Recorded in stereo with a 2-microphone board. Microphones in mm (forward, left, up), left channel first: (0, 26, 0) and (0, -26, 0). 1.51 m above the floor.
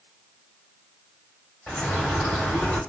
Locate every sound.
1.7 s a bird: 15° left (ahead or behind), 3 m